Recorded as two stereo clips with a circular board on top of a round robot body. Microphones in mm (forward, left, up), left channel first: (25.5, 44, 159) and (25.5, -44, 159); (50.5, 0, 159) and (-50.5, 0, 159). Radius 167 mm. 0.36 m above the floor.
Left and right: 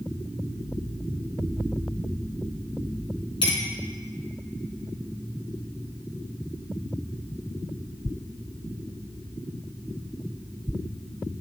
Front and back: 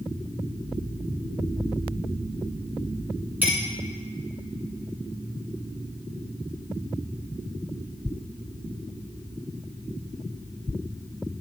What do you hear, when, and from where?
3.4 s a clink: 110° left, 3.5 m